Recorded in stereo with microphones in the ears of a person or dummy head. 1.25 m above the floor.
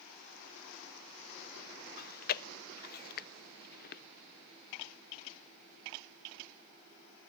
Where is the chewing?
50° left (ahead or behind), 0.5 m.